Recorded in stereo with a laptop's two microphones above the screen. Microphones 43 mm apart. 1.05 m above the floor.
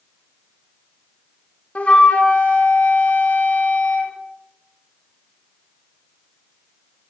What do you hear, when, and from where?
1.8 s a flute: 30° left (ahead or behind), 0.5 m